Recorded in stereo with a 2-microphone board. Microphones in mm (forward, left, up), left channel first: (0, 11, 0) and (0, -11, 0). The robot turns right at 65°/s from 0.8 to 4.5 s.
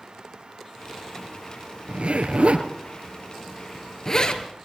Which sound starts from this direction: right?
A zipper, at 1.9 s.